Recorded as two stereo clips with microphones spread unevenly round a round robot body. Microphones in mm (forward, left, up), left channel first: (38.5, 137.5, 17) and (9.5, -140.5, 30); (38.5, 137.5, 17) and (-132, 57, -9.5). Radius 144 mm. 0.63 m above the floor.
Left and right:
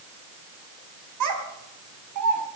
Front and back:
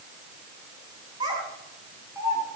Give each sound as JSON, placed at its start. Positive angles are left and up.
{"t": 1.2, "sound": "a child speaking", "azimuth_deg": -75, "distance_m": 3.5}